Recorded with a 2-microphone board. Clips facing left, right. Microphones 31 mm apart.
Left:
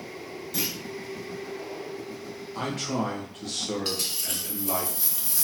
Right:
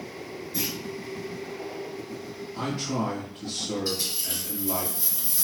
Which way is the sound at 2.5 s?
80° left.